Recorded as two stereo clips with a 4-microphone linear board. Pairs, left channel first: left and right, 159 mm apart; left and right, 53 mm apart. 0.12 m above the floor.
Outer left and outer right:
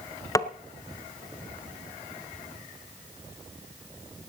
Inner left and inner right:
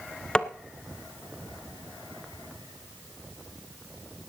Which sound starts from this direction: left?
Tapping, at 0.3 s.